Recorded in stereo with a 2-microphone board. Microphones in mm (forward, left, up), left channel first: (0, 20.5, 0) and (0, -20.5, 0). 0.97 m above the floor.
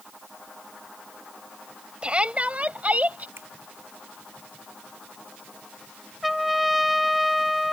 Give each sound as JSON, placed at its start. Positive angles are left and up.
{"t": 2.0, "sound": "a shout", "side_deg": -25}
{"t": 3.4, "sound": "a finger snap", "side_deg": -75}
{"t": 6.2, "sound": "a trumpet", "side_deg": 0}